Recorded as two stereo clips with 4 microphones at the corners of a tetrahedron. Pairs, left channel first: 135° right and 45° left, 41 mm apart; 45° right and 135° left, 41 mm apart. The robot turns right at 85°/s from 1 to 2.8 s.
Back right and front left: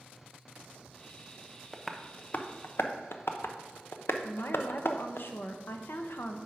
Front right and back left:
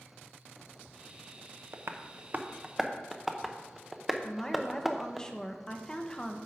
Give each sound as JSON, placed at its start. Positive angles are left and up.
{"t": 1.7, "sound": "tapping", "azimuth_deg": 130, "distance_m": 0.9}
{"t": 4.2, "sound": "a woman speaking", "azimuth_deg": -120, "distance_m": 1.0}